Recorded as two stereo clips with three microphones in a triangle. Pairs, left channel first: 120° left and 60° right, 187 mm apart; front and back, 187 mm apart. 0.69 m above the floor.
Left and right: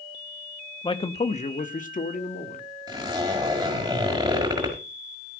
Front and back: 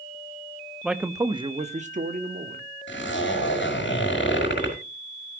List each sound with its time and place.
0.8 s a man speaking: 95° left, 1.0 m; by 2.6 s 155° left, 1.9 m
2.9 s a zipper: 10° left, 5 m